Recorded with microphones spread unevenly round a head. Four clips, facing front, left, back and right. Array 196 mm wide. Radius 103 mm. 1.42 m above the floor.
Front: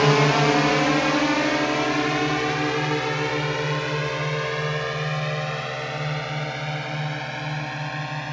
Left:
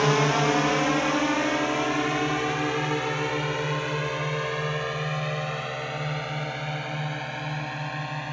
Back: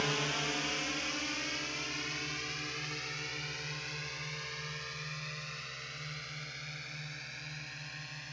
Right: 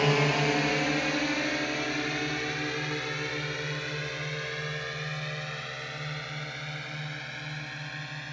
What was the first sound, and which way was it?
A drone, 10° left.